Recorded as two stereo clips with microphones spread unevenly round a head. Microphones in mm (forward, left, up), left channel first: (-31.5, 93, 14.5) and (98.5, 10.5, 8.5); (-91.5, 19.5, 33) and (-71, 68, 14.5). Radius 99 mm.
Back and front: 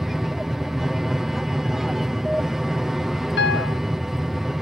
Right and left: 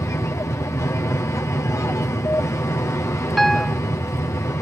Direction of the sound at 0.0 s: 120° right.